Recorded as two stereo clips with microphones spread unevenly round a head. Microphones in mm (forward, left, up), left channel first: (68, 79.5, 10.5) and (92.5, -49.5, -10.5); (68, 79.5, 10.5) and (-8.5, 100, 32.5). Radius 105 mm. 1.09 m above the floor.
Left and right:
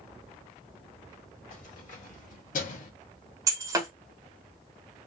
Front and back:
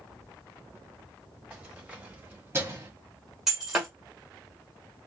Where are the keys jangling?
90° left, 1.7 m; by 2.9 s 115° left, 1.1 m.